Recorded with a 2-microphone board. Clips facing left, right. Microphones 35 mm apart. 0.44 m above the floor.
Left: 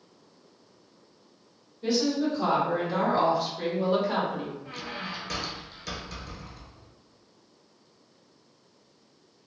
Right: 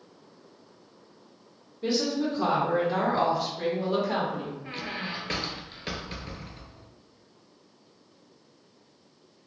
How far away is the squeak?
About 0.5 m.